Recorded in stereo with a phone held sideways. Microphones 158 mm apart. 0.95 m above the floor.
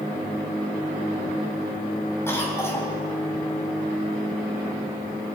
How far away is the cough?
About 5.5 m.